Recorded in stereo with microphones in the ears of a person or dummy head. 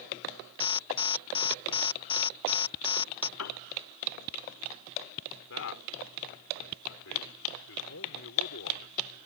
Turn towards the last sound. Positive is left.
turn(degrees=70)  # may be behind; listen again after turning